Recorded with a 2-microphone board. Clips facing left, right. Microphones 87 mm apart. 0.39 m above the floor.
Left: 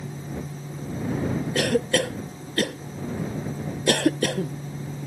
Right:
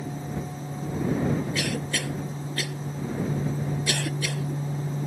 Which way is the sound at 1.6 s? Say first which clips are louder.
Left 7 dB; 50° left (ahead or behind).